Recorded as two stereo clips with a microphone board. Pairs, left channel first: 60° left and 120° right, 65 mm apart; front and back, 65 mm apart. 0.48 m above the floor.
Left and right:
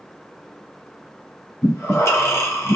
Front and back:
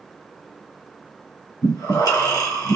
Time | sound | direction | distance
1.6 | breathing | 10° left | 1.8 m